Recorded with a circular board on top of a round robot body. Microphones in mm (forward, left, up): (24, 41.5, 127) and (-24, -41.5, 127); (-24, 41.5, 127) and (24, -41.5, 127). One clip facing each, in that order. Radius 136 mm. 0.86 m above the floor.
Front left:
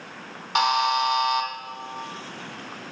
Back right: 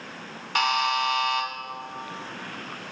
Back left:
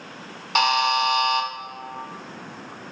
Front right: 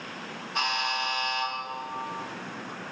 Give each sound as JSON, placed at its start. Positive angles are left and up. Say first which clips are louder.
{"t": 0.6, "sound": "a buzzer", "louder": "front left 3 dB, back left 10 dB", "azimuth_deg": 130, "distance_m": 1.3}